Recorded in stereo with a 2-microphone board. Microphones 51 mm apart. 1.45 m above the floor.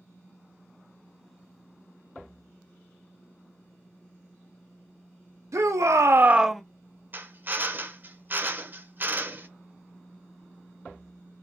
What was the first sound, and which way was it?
A shout, 70° right (ahead or behind).